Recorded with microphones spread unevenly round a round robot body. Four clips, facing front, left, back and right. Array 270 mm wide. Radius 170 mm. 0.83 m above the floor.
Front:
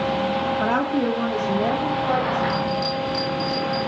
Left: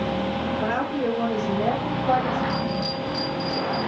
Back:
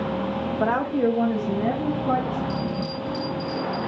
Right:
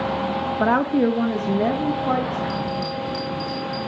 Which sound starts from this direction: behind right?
A bell, at 2.5 s.